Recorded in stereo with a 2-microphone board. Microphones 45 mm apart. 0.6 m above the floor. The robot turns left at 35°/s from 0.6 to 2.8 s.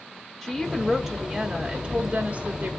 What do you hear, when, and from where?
0.4 s a woman speaking: 10° right, 0.8 m; by 2.7 s 80° right, 0.8 m